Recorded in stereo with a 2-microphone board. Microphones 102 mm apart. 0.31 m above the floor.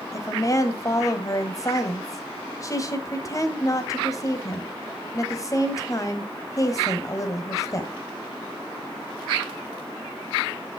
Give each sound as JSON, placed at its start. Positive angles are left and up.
{"t": 0.1, "sound": "a woman speaking", "side_deg": 35, "distance_m": 1.3}